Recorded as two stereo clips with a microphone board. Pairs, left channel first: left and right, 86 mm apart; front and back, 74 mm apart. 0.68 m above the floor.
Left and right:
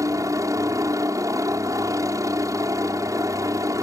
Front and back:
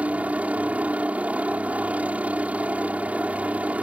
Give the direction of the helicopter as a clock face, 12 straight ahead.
4 o'clock.